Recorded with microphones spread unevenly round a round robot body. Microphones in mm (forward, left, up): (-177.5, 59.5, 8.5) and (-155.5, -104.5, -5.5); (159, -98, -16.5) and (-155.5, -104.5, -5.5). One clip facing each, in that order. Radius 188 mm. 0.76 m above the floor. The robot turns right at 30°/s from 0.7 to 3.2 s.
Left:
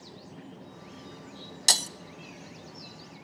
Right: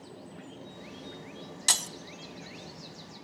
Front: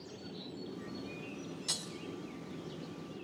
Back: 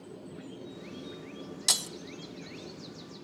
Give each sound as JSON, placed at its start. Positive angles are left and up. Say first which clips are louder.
{"t": 1.7, "sound": "breaking glass", "louder": "left 5 dB, back 3 dB", "azimuth_deg": 155, "distance_m": 0.7}